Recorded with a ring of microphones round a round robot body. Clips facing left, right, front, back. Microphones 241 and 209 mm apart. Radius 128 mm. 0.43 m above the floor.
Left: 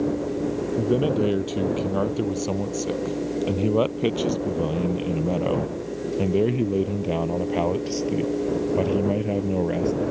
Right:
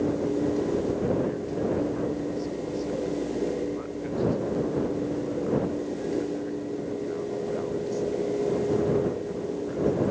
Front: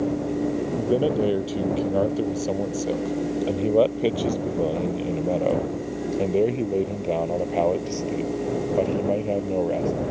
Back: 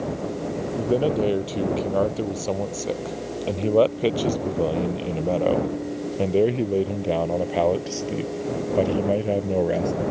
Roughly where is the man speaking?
Left.